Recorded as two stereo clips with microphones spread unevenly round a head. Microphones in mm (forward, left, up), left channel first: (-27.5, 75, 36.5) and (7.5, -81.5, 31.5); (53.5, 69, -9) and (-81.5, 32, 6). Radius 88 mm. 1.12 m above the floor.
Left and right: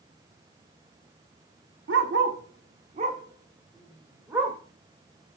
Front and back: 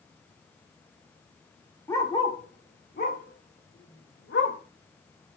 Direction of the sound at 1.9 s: 65° right.